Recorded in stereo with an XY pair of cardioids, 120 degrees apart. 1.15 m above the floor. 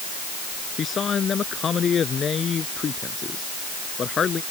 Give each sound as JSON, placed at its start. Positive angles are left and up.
{"t": 0.8, "sound": "a man speaking", "azimuth_deg": 40}